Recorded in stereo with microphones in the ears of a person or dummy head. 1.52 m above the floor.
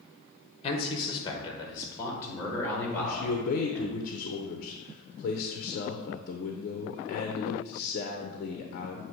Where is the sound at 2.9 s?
45° left (ahead or behind), 0.7 m.